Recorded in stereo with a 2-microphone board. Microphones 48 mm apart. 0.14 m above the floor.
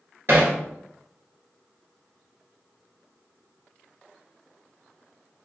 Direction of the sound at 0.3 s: 55° right (ahead or behind).